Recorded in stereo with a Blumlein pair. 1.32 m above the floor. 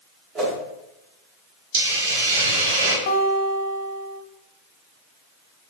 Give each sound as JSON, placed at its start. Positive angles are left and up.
{"t": 0.3, "sound": "a whoosh", "azimuth_deg": -25, "distance_m": 1.7}
{"t": 1.7, "sound": "a hiss", "azimuth_deg": -55, "distance_m": 1.0}
{"t": 3.1, "sound": "a guitar", "azimuth_deg": 50, "distance_m": 0.8}